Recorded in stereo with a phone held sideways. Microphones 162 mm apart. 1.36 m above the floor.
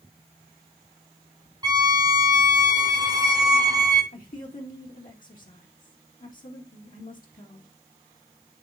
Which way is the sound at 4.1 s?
55° left (ahead or behind).